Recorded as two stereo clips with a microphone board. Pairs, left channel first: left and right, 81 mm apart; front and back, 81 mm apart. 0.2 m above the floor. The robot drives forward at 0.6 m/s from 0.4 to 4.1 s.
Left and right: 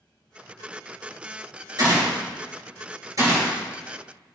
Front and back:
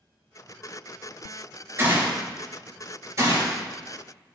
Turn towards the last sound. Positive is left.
turn(degrees=-140)